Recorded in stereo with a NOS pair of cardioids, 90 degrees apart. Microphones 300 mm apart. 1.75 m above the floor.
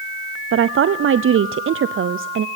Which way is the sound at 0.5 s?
45° right.